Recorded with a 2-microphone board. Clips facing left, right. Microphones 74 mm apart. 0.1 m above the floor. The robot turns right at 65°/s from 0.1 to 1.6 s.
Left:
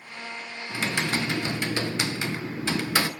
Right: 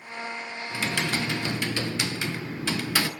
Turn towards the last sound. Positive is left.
turn(degrees=25)  # may be behind; listen again after turning